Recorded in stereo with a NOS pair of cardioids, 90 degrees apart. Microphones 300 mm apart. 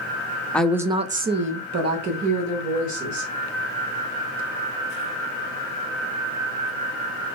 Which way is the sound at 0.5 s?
5° left.